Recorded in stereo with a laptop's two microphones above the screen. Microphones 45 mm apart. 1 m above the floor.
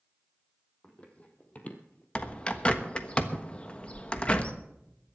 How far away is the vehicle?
No vehicle in this recording.